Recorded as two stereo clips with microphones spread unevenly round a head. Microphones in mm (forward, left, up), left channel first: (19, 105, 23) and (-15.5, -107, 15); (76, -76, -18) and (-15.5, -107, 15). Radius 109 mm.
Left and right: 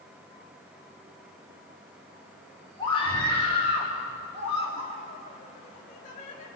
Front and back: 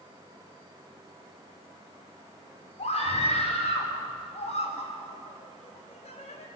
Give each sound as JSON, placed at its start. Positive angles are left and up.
{"t": 2.8, "sound": "a scream", "azimuth_deg": 15, "distance_m": 6.0}